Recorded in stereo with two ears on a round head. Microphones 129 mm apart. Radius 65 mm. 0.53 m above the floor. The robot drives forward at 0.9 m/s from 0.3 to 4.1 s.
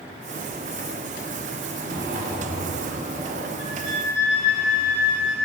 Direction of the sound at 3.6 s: 45° right (ahead or behind).